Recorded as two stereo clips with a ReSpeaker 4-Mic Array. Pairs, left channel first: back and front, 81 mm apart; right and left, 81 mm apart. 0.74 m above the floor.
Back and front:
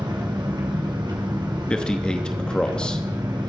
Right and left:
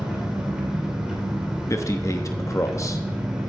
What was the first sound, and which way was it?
An engine running, 10° left.